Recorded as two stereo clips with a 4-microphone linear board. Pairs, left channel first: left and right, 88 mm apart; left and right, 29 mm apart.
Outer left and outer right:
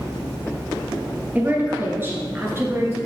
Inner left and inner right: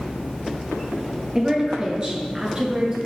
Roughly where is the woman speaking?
Right.